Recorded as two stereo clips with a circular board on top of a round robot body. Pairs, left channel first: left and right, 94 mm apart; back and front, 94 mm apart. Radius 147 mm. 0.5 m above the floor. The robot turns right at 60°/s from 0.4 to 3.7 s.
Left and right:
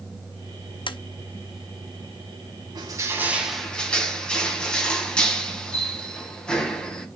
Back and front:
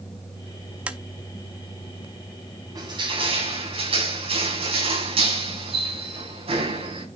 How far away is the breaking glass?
No breaking glass in this recording.